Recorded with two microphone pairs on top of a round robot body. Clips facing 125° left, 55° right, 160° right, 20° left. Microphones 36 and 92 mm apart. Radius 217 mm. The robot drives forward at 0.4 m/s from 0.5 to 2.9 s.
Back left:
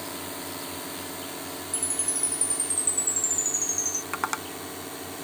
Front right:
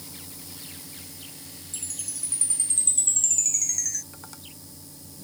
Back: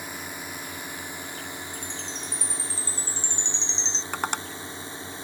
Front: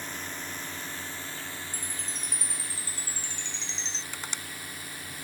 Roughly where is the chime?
Right.